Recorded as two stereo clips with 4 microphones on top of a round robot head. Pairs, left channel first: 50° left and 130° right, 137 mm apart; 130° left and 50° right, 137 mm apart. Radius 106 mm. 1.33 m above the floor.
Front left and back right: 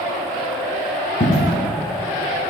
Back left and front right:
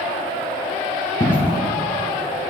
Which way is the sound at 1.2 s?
75° left.